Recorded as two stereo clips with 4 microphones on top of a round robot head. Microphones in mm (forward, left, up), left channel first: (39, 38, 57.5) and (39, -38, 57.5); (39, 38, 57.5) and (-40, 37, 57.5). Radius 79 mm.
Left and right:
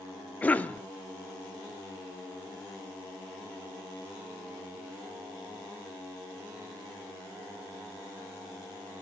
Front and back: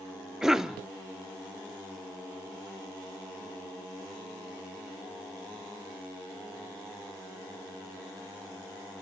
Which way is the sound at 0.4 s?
105° left.